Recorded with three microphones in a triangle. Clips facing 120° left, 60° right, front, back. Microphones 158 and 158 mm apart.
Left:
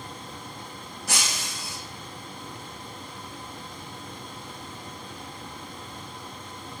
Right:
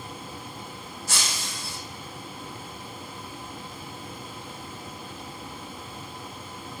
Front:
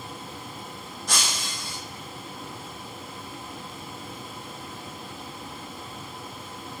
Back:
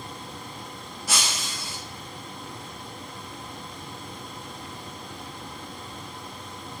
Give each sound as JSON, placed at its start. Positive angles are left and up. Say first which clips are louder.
{"t": 1.1, "sound": "breaking glass", "louder": "left 2 dB, even", "azimuth_deg": 95, "distance_m": 1.6}